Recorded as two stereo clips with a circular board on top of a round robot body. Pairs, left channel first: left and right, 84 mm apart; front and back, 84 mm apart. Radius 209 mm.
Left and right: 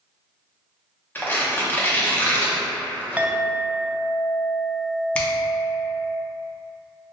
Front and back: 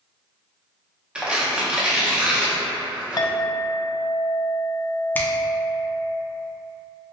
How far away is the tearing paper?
About 1.1 m.